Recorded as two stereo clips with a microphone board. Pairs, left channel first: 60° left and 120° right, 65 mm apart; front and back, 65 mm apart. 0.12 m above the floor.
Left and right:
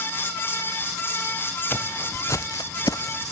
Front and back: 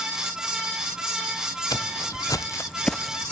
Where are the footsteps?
5° left, 1.1 m; by 3.3 s 110° left, 0.7 m.